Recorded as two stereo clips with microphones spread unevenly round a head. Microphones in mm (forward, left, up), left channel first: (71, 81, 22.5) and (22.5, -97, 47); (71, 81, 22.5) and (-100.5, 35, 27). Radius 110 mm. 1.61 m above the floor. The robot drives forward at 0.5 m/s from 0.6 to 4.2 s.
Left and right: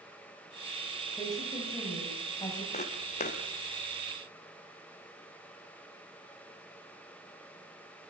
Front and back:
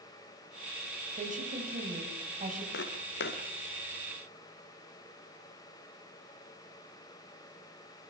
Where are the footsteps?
20° left, 3.5 m; by 3.4 s 25° left, 3.5 m.